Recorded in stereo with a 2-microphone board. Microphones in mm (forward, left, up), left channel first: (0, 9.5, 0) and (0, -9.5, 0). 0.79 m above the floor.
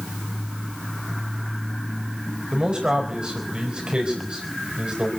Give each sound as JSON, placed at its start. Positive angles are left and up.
{"t": 2.5, "sound": "a man speaking", "side_deg": -50, "distance_m": 4.5}